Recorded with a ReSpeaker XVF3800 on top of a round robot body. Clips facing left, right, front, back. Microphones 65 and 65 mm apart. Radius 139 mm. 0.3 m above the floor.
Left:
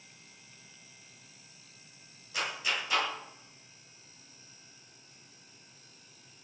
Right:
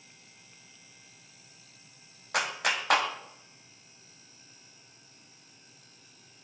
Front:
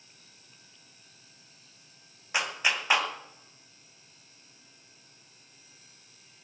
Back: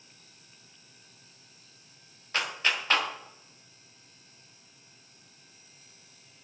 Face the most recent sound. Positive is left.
turn(degrees=-75)